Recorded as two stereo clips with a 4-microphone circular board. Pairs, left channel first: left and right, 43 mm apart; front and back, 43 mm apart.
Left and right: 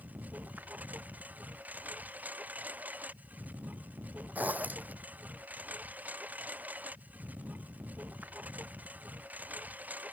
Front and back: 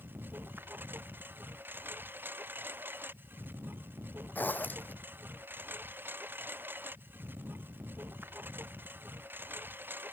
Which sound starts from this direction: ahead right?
A zipper, at 4.3 s.